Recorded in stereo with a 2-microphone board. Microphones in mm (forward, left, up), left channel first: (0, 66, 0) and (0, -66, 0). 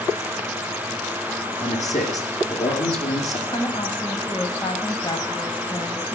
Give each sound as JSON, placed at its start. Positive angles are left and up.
{"t": 1.6, "sound": "a man speaking", "side_deg": 65, "distance_m": 5.0}
{"t": 3.5, "sound": "a woman speaking", "side_deg": 40, "distance_m": 2.0}